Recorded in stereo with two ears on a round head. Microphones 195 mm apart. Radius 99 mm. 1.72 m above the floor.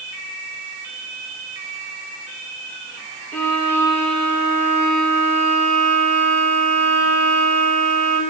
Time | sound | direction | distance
3.3 | a violin | 10° left (ahead or behind) | 8.5 m